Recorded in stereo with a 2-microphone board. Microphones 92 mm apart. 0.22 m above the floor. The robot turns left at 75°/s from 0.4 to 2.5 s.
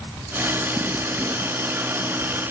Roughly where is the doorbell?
I don't hear a doorbell.